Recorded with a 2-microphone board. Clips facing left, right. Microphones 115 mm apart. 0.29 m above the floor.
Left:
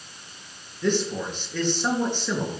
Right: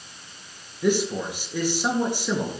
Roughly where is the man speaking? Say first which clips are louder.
Right 2 dB; centre.